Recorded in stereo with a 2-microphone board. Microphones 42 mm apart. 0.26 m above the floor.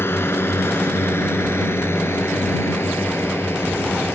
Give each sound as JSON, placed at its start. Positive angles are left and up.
{"t": 0.0, "sound": "a drone", "side_deg": 65}